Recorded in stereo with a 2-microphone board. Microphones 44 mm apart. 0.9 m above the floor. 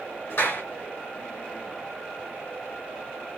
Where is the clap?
75° left (ahead or behind), 4 m.